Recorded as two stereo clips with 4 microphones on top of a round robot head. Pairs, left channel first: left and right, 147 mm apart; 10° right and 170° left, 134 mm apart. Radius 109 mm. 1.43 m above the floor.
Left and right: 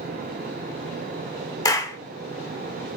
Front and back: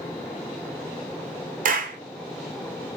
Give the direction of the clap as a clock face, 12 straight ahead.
7 o'clock.